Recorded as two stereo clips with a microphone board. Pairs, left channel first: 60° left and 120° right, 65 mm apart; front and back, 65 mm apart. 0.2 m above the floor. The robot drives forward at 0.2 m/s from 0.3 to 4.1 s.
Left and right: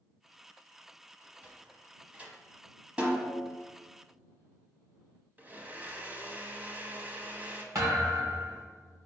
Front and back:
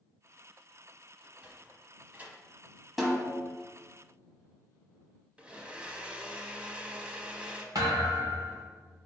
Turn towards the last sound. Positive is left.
turn(degrees=-165)